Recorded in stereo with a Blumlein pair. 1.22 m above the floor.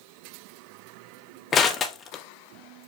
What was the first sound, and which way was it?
Crushing, 25° left.